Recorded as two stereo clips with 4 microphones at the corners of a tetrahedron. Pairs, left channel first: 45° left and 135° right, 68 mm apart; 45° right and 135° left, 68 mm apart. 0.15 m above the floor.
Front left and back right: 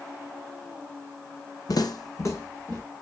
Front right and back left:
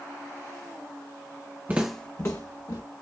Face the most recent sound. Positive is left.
turn(degrees=-20)